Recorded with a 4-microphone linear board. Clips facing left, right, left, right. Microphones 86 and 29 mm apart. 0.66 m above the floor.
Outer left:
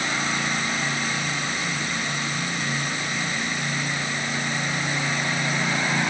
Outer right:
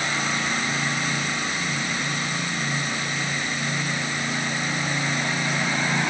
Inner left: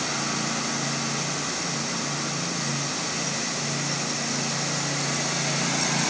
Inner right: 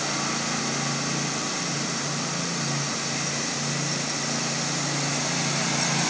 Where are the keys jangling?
I don't hear keys jangling.